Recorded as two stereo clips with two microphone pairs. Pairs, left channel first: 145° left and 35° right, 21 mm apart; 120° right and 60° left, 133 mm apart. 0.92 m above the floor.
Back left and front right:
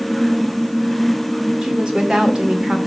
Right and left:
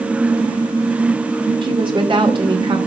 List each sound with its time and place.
1.6 s a woman speaking: 10° left, 2.5 m